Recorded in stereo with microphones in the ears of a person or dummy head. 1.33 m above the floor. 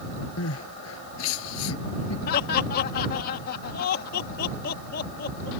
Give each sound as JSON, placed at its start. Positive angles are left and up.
{"t": 0.4, "sound": "crying", "side_deg": 85}
{"t": 2.3, "sound": "laughter", "side_deg": 50}